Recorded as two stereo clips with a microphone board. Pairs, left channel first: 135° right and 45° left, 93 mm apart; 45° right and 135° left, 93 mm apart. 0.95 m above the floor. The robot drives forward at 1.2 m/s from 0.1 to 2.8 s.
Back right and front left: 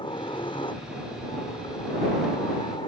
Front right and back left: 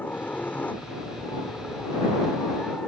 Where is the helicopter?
115° right; by 2.9 s 125° right.